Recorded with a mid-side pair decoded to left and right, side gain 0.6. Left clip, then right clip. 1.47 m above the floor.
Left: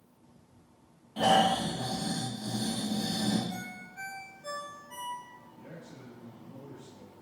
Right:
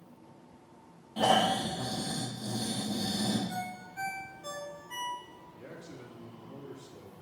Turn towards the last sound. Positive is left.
turn(degrees=-50)